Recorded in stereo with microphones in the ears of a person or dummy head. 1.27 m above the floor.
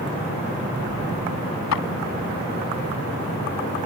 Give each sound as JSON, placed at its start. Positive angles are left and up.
{"t": 1.7, "sound": "a clap", "side_deg": 90}